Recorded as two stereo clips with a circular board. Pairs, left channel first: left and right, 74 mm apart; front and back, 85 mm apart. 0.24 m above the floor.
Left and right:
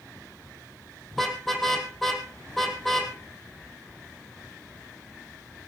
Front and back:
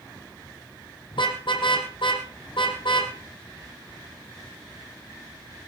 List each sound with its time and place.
1.1 s a car horn: straight ahead, 3.5 m